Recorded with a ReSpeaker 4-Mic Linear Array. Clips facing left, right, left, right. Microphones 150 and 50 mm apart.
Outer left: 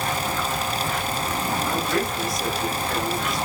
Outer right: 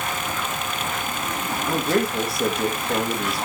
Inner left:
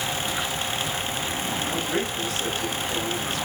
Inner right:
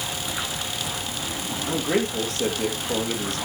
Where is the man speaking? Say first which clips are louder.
Outer right 7 dB, inner right 7 dB; 60° right (ahead or behind), 3.5 m.